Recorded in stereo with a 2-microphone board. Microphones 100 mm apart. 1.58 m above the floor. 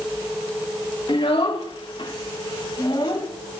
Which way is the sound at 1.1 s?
55° left (ahead or behind).